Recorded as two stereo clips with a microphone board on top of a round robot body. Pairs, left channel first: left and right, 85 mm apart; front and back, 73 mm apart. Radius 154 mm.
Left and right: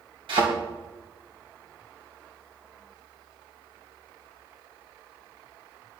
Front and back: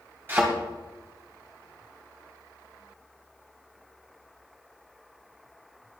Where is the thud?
120° right, 3 m.